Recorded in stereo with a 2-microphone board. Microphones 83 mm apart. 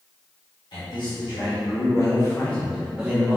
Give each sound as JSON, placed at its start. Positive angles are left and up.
{"t": 0.7, "sound": "a man speaking", "side_deg": 65, "distance_m": 1.2}